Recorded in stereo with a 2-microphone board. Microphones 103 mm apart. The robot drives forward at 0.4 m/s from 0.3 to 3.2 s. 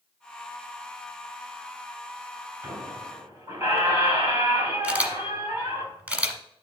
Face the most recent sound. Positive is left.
turn(degrees=-15)  # may be behind; listen again after turning